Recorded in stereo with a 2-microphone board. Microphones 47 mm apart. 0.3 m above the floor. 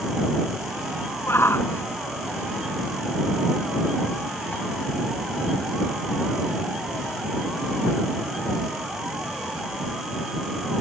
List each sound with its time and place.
1.3 s a shout: 60° left (ahead or behind); by 4.6 s 35° left (ahead or behind)